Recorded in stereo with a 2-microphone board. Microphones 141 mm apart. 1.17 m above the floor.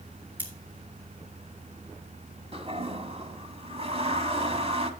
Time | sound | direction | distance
0.4 | scissors | 15° right (ahead or behind) | 2.5 m
2.5 | a toilet flushing | 40° right (ahead or behind) | 1.5 m